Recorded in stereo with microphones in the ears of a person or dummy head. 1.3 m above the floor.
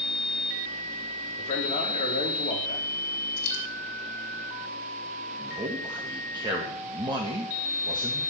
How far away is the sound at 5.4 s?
About 1.9 m.